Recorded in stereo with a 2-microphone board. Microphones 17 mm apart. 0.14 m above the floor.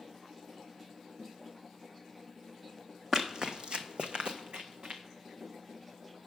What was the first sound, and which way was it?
Running footsteps, 35° right (ahead or behind).